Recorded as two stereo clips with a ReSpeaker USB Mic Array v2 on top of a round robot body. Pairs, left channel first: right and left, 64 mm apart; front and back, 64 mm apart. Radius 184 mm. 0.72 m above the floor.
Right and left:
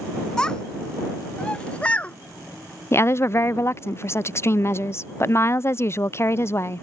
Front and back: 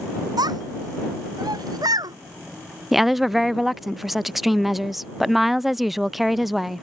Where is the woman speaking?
95° right.